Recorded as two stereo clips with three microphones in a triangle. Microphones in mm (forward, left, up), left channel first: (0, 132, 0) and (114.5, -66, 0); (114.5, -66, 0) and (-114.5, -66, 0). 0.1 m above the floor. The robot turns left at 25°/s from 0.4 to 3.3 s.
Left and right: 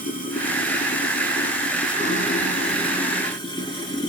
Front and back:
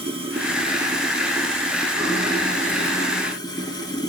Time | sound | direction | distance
0.0 | running water | 135° left | 1.3 m